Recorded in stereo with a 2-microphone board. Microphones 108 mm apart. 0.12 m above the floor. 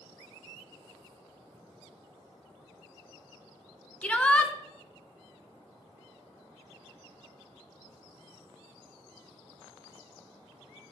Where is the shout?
10° left (ahead or behind), 1.1 m.